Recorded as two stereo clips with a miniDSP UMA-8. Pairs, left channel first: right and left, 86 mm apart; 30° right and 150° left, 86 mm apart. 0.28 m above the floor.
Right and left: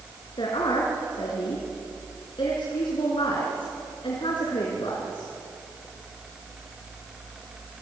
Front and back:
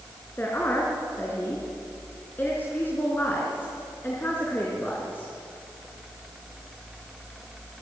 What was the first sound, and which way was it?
A woman speaking, 95° right.